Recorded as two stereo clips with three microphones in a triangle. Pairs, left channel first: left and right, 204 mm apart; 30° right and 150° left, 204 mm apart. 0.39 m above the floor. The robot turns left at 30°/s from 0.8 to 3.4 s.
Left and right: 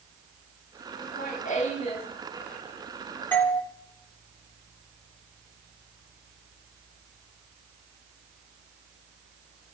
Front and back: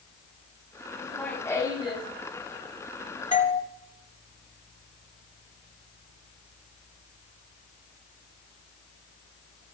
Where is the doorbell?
10° left, 2.5 m.